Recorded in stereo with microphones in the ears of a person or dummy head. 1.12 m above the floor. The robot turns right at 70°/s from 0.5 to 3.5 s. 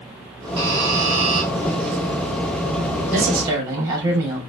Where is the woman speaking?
50° right (ahead or behind), 2.5 m; by 4.4 s 20° right (ahead or behind), 2.5 m.